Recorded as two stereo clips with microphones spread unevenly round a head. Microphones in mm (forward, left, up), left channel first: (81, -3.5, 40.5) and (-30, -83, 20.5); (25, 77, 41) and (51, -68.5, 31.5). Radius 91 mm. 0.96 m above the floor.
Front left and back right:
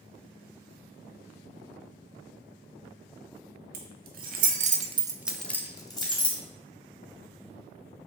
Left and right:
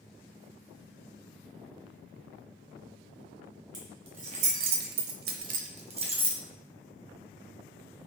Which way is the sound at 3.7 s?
145° right.